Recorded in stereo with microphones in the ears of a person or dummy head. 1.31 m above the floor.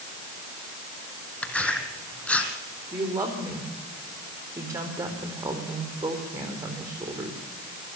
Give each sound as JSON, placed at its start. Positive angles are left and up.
{"t": 1.4, "sound": "tearing paper", "side_deg": 5, "distance_m": 2.5}
{"t": 2.9, "sound": "a woman speaking", "side_deg": -20, "distance_m": 4.5}